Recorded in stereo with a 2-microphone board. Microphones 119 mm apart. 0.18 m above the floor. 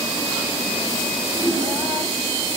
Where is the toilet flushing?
10° right (ahead or behind), 10 m.